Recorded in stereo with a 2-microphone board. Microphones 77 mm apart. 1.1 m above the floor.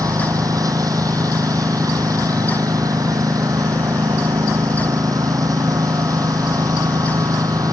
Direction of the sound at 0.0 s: 55° right (ahead or behind).